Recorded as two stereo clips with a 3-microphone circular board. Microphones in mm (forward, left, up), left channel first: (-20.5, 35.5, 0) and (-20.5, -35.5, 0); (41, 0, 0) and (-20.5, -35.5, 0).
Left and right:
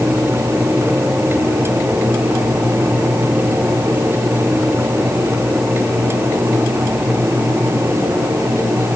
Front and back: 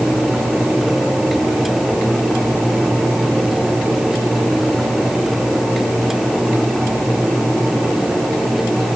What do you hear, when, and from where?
Only background noise.